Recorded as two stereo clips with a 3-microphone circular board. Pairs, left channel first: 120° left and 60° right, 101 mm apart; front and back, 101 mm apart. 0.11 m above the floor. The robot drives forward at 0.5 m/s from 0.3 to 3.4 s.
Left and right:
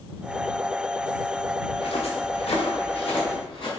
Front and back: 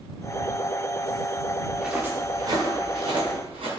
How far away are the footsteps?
About 1.0 m.